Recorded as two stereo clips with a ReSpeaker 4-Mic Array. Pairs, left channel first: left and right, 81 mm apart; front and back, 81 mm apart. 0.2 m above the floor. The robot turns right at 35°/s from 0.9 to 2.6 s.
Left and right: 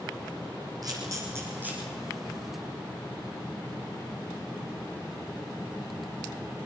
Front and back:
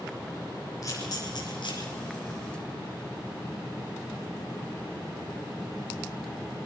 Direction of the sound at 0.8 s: 50° right.